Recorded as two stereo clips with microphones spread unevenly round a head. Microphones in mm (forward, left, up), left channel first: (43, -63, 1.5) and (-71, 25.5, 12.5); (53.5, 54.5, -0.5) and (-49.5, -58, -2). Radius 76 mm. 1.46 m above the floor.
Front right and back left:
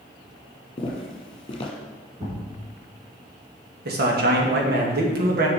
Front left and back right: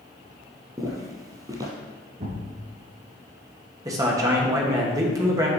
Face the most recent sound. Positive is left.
turn(degrees=160)